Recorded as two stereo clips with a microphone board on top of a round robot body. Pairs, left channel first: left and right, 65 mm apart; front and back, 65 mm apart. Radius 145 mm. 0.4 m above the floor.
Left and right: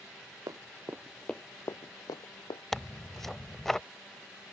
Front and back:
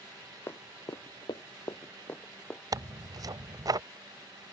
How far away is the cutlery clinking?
No cutlery clinking in this recording.